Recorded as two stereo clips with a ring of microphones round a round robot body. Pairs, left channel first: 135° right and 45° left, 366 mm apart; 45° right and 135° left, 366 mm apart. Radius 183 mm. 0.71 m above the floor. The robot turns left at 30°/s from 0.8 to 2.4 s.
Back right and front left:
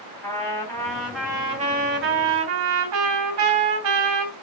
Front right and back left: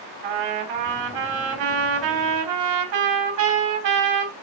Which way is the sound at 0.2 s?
140° left.